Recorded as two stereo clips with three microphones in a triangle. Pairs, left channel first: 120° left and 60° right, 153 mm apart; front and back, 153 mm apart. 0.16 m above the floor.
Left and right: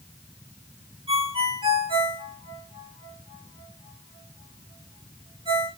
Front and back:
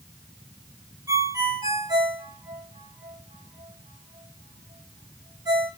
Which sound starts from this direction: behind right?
A ringtone, at 1.1 s.